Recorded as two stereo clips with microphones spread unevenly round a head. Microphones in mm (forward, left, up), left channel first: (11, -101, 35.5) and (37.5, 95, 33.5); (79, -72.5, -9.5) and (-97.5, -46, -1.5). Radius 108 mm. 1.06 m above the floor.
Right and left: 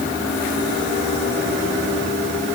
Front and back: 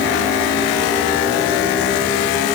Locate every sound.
Only background noise.